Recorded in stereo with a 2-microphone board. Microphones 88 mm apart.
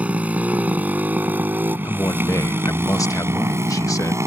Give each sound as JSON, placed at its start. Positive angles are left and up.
{"t": 0.0, "sound": "a motorcycle", "side_deg": -15}
{"t": 1.8, "sound": "a man speaking", "side_deg": 40}